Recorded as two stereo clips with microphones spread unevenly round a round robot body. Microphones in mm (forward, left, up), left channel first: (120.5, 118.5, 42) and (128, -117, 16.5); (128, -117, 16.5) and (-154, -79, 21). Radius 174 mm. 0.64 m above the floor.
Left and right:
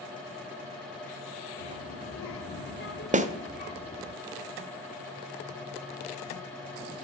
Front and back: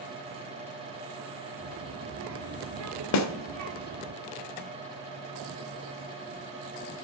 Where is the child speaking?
115° left, 1.6 m; by 4.1 s 170° left, 1.4 m.